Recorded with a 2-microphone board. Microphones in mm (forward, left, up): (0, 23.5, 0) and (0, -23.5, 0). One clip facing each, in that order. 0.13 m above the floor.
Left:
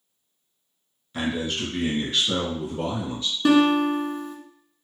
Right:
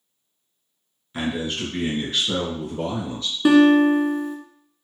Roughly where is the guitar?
Centre.